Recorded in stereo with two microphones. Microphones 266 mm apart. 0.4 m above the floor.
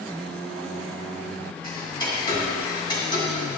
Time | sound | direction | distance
1.6 | ticking | 15° left (ahead or behind) | 2 m